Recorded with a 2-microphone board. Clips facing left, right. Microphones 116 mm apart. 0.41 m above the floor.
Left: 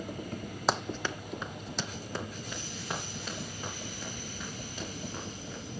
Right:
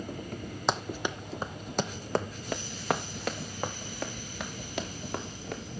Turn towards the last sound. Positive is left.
turn(degrees=-80)